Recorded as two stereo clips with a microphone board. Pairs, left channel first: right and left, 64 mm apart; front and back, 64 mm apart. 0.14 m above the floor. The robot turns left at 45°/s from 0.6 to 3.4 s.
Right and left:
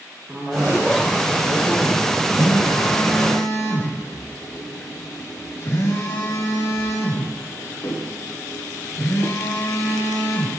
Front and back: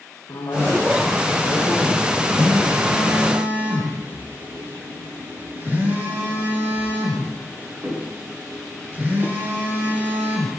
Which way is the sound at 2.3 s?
70° right.